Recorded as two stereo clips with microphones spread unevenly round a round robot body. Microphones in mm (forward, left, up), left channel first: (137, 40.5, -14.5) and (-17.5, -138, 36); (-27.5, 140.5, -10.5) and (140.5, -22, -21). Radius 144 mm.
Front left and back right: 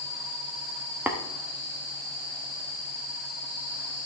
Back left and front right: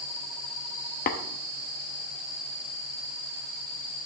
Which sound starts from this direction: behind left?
Tapping, at 1.1 s.